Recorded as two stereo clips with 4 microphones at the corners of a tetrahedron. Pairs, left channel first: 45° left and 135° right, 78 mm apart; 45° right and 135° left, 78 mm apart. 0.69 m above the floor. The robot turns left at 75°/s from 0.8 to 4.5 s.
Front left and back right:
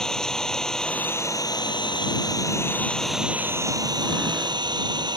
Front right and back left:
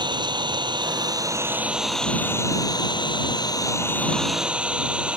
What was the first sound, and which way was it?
An engine running, 130° left.